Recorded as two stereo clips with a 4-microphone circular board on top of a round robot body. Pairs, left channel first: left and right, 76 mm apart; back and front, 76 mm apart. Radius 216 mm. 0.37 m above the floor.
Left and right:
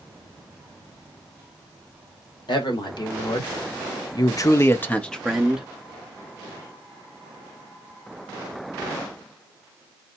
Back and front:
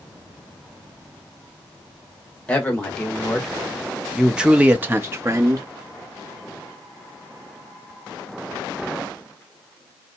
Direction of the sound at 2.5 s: 105° left.